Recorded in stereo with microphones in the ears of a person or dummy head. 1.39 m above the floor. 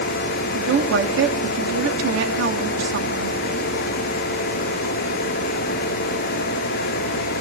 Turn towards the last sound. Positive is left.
turn(degrees=-75)  # may be behind; listen again after turning